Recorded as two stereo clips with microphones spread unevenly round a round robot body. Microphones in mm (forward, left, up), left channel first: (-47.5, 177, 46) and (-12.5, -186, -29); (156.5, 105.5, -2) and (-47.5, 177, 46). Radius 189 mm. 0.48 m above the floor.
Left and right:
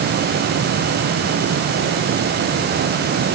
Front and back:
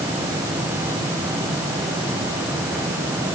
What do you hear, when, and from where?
Only background noise.